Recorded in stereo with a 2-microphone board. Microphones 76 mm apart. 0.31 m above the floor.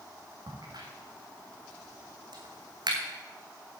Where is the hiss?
I don't hear a hiss.